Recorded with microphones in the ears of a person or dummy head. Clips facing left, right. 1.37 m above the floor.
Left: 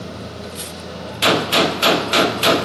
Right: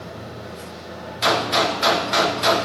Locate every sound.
0.0 s a machine running: 45° left (ahead or behind), 1.1 m
1.2 s a gunshot: 40° left (ahead or behind), 0.5 m